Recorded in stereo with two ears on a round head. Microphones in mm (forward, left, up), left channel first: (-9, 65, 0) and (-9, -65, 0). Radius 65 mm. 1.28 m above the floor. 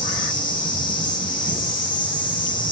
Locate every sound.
0.0 s an insect: 30° left (ahead or behind), 4 m